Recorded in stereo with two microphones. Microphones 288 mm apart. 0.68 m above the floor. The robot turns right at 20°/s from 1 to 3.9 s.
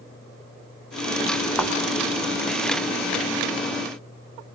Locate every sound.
1.6 s a thud: centre (ahead or behind), 2 m; by 1.8 s 5° left (ahead or behind), 2 m